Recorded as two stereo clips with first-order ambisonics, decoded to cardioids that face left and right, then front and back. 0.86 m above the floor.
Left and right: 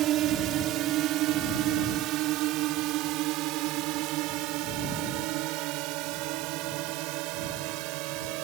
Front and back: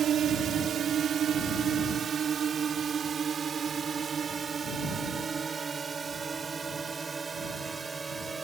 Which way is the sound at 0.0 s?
125° right.